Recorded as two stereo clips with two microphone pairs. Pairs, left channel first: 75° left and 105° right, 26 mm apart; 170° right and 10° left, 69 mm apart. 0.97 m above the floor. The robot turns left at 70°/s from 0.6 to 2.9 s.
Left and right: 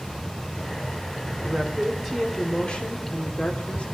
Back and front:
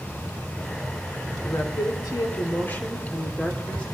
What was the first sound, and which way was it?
A woman speaking, 140° right.